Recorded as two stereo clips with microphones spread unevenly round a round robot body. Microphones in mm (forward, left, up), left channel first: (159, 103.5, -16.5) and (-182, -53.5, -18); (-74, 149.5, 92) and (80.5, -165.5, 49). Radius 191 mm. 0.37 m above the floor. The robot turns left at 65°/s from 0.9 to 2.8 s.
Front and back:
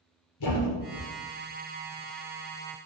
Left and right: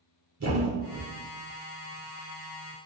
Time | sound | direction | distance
0.4 | a thud | 15° right | 3.5 m